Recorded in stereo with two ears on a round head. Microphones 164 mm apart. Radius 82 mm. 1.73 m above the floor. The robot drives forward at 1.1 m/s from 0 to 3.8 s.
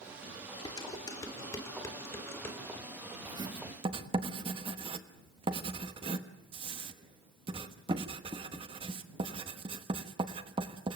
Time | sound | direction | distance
0.7 | dishes clattering | 25° left (ahead or behind) | 3.5 m
3.2 | writing | 20° right (ahead or behind) | 1.9 m